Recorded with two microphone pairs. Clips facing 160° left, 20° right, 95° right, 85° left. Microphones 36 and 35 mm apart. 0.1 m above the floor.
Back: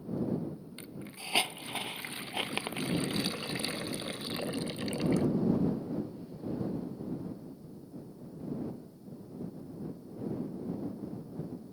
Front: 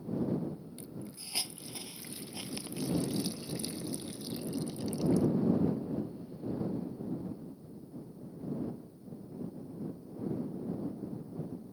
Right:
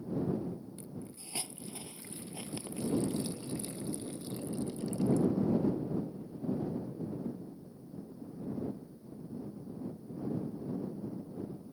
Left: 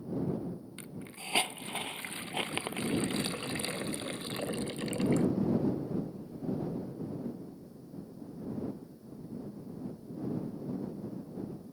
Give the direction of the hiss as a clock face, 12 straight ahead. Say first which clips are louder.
Back 1 dB, left 2 dB; 8 o'clock.